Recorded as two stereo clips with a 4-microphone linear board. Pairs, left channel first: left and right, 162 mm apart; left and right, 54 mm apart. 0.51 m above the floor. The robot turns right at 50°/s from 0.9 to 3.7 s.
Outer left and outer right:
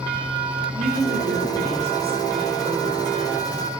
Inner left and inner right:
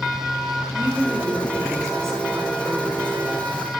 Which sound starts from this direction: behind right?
A woman speaking, at 0.8 s.